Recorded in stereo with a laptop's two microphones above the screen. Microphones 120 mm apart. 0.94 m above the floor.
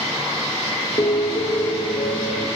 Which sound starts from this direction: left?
A piano, at 1.0 s.